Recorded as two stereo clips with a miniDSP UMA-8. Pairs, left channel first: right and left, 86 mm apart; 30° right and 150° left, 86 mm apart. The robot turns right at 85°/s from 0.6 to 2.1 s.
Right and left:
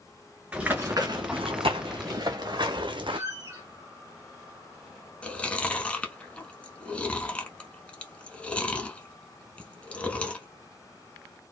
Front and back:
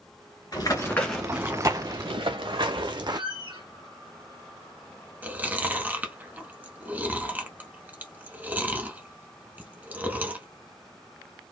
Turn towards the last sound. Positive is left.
turn(degrees=-155)